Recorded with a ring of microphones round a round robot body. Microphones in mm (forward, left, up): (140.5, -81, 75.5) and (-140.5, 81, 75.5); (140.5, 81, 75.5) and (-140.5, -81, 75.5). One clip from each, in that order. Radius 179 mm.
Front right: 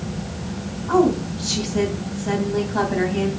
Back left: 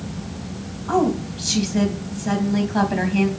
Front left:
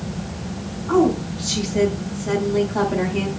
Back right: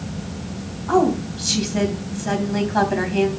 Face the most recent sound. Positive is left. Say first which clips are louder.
# front right 2 dB, even
turn(degrees=-170)